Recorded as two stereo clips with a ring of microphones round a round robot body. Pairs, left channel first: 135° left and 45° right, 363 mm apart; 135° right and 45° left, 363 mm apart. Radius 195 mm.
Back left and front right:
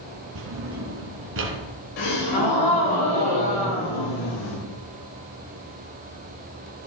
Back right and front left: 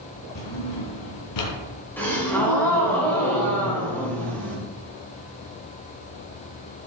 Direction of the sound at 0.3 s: 100° right.